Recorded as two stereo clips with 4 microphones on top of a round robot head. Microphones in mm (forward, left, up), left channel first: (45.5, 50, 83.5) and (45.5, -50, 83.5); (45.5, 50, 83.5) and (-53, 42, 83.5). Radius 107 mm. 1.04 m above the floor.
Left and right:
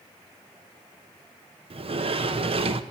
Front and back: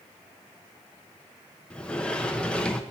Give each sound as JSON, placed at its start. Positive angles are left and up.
{"t": 1.7, "sound": "a sliding door", "azimuth_deg": -75, "distance_m": 0.9}